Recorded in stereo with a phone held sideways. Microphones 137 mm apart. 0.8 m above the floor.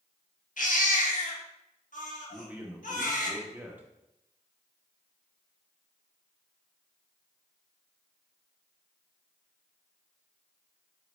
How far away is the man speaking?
About 0.9 m.